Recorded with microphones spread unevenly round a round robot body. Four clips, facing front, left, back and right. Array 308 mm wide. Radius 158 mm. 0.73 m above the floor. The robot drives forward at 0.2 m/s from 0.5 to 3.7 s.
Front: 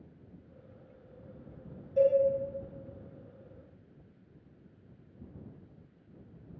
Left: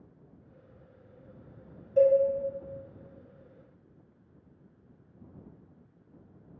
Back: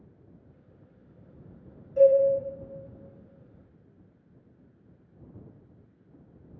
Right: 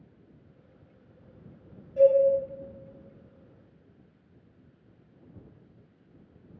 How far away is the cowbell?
About 1.2 m.